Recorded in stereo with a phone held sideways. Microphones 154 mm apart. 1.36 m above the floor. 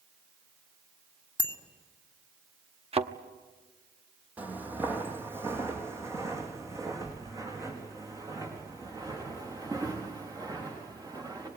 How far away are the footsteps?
About 2.5 m.